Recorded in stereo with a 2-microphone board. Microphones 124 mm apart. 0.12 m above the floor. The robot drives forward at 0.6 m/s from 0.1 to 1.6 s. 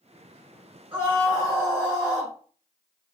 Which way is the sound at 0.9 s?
15° right (ahead or behind).